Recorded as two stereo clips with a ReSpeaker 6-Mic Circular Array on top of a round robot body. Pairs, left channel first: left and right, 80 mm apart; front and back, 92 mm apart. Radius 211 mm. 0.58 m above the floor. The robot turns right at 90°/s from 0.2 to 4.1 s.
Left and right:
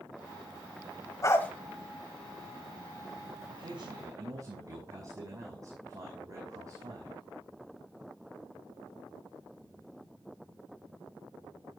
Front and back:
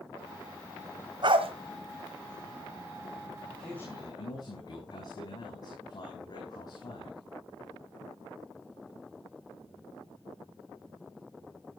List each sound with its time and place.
1.2 s a dog barking: 140° left, 1.5 m; by 1.5 s 170° left, 1.5 m
3.5 s a man speaking: 100° right, 6 m; by 7.2 s 45° right, 6 m